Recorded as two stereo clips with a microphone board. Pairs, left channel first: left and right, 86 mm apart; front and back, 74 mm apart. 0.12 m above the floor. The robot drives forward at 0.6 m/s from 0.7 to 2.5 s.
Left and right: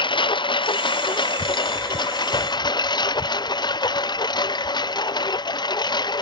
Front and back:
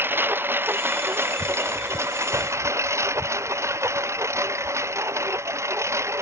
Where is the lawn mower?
120° left; by 6.2 s 125° left.